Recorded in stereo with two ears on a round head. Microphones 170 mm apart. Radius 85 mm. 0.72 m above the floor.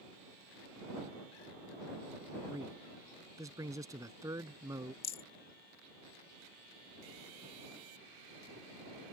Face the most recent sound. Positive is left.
turn(degrees=30)  # may be behind; listen again after turning